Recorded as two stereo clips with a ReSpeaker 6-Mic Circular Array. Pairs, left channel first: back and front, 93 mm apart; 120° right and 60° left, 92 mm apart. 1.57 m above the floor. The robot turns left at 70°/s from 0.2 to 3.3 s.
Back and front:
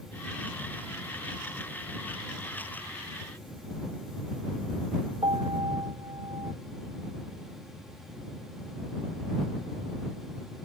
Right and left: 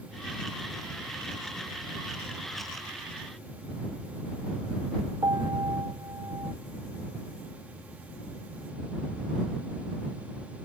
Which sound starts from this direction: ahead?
A piano, at 5.2 s.